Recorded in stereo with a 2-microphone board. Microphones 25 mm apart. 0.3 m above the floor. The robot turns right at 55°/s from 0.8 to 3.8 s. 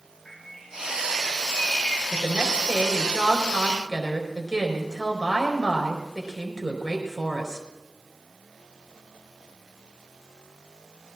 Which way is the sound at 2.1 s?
110° right.